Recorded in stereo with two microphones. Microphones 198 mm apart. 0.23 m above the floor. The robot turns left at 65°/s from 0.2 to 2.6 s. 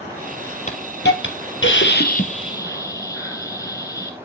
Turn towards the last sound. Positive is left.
turn(degrees=15)